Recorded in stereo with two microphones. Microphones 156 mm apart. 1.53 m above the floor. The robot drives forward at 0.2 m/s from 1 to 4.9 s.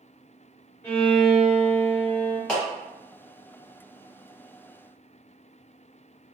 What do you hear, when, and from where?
0.8 s a violin: 10° left (ahead or behind), 1.0 m; by 2.4 s 15° left (ahead or behind), 0.8 m
2.5 s a clap: 5° left (ahead or behind), 1.0 m